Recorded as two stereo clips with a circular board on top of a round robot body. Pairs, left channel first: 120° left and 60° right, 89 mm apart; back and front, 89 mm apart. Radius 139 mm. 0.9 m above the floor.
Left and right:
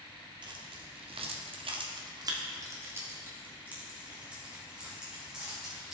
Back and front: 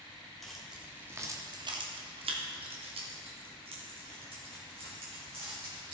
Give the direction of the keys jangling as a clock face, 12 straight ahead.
3 o'clock.